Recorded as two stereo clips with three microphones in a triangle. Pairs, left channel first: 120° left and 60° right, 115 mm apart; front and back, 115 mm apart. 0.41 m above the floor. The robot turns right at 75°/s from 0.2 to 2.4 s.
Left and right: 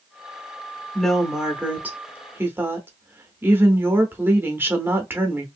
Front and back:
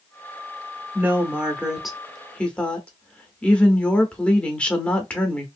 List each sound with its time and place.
0.9 s a woman speaking: 165° right, 0.7 m; by 5.5 s 60° right, 0.7 m